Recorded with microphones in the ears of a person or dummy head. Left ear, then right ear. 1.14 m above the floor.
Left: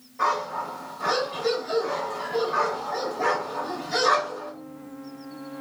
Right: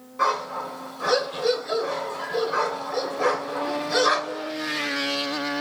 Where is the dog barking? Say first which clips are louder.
Right 1 dB; 30° right (ahead or behind), 1.4 m.